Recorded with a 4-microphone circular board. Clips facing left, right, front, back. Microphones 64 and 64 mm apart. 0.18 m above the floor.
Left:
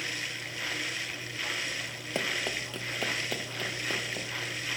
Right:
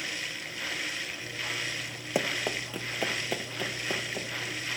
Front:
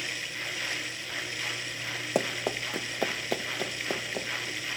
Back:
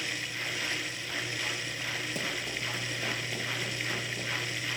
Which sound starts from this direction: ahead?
Running footsteps, at 2.1 s.